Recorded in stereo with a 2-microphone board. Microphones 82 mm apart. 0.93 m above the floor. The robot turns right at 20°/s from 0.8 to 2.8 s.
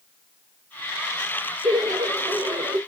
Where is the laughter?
65° right (ahead or behind), 1.1 m; by 2.8 s 75° right (ahead or behind), 1.1 m.